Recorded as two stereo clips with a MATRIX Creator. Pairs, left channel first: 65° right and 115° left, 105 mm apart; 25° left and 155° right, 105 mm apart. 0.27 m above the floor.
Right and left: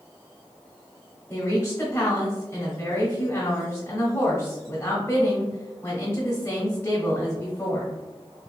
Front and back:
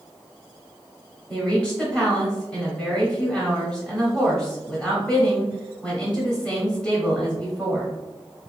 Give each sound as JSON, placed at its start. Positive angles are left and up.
{"t": 1.3, "sound": "a woman speaking", "azimuth_deg": -45, "distance_m": 0.9}